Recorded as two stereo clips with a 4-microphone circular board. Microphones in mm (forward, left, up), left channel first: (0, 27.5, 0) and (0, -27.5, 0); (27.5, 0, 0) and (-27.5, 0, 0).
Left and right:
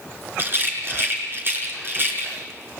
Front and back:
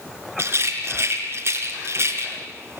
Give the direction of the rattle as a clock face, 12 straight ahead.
5 o'clock.